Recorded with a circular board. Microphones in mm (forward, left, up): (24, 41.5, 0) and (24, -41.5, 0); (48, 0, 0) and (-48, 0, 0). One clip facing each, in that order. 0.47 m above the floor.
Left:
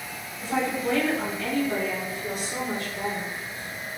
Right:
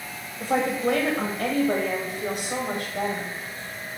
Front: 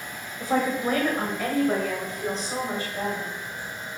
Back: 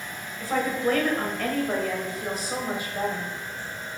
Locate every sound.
0.4 s a woman speaking: 65° right, 1.9 m; by 3.3 s 115° right, 2 m